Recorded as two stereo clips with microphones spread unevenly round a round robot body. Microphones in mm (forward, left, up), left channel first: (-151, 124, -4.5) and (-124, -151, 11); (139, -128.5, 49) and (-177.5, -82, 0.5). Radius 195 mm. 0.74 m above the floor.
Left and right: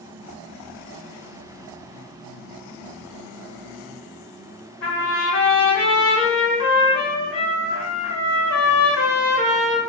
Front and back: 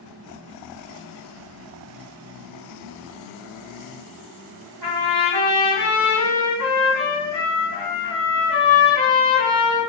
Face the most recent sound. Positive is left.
turn(degrees=130)